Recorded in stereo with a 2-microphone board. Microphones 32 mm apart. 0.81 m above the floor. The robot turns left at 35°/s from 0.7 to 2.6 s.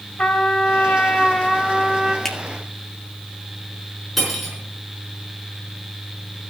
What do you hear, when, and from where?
0.2 s a trumpet: 40° left, 1.7 m; by 2.1 s 10° right, 1.7 m
2.2 s a finger snap: 15° left (ahead or behind), 1.7 m; by 2.4 s 20° left (ahead or behind), 1.7 m
4.2 s cutlery clinking: 5° left (ahead or behind), 5 m